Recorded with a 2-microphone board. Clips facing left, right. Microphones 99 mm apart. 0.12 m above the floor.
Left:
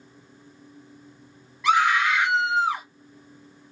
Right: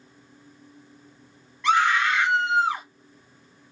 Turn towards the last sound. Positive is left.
turn(degrees=5)  # may be behind; listen again after turning